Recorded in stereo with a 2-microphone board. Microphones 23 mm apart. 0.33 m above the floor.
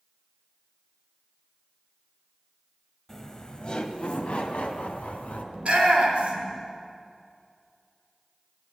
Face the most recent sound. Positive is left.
turn(degrees=-60)  # may be behind; listen again after turning